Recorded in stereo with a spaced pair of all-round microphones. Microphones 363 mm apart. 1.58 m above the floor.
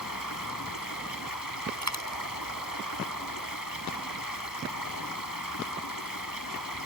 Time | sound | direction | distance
0.0 | running water | 65° left (ahead or behind) | ?
1.8 | a dropped coin | 50° right (ahead or behind) | ?